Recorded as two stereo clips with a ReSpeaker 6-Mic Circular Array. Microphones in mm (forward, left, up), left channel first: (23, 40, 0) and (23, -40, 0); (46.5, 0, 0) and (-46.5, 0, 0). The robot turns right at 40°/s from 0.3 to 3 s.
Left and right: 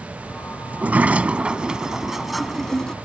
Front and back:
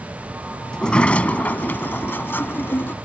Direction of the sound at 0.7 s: 65° right.